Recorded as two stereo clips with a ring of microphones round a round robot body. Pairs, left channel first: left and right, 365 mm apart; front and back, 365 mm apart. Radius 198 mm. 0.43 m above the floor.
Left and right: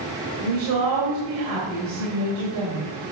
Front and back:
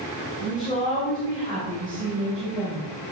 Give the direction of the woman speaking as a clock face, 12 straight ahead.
3 o'clock.